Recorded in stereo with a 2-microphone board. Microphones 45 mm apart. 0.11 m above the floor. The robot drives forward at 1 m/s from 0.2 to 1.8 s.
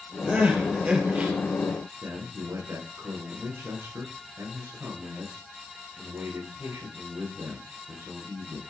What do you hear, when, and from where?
0.3 s crying: 25° right (ahead or behind), 3.5 m; by 1.3 s 35° right (ahead or behind), 2.5 m
2.0 s a man speaking: 75° right (ahead or behind), 10 m